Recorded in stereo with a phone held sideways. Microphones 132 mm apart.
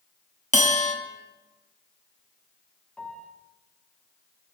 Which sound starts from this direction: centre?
A piano, at 3.0 s.